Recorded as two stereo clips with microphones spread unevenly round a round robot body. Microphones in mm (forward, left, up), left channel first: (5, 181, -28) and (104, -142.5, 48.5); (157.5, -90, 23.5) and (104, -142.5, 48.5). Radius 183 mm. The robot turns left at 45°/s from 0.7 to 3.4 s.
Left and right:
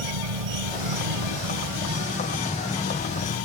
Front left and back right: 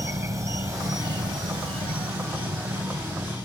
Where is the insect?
80° right; by 3.5 s 160° left.